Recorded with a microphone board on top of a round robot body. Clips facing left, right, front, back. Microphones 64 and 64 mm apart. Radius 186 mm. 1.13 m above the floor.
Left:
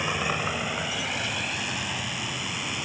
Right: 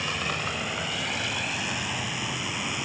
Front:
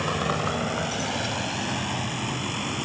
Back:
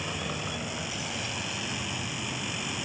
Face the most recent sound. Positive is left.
turn(degrees=-5)